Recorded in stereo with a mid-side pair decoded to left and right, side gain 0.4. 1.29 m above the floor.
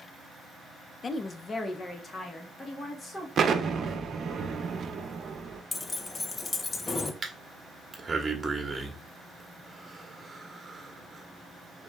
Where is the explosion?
60° right, 0.7 m.